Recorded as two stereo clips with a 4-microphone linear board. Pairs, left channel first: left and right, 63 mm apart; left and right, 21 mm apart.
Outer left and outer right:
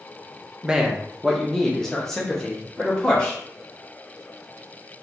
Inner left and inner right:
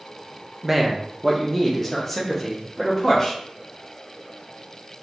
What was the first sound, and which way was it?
A man speaking, 15° right (ahead or behind).